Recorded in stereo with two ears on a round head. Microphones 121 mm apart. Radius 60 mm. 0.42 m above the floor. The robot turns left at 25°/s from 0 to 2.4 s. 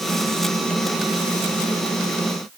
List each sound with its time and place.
Only background noise.